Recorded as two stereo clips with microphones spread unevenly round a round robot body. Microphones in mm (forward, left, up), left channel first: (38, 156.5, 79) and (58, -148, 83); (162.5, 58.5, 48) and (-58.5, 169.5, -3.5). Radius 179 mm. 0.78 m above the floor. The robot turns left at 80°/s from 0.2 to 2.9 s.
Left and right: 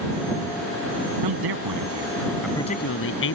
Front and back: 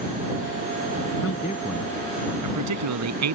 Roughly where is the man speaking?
Right.